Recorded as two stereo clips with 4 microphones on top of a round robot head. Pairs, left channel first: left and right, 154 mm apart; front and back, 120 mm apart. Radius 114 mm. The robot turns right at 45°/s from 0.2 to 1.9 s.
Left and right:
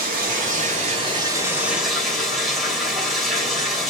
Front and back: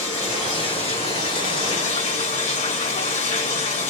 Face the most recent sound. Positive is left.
turn(degrees=0)